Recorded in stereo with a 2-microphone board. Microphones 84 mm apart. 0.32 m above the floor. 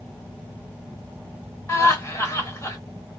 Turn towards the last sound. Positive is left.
turn(degrees=30)  # may be behind; listen again after turning